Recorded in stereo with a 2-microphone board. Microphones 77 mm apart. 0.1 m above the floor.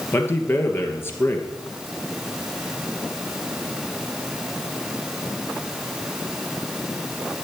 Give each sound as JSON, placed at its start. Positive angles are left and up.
{"t": 0.1, "sound": "a man speaking", "side_deg": 30, "distance_m": 2.0}